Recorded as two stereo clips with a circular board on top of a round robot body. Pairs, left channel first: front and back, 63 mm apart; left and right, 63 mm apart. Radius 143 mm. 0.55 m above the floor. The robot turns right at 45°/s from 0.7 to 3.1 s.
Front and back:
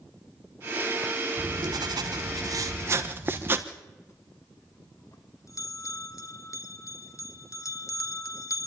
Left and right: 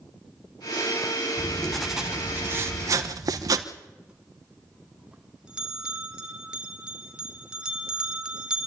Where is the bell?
15° right, 2 m.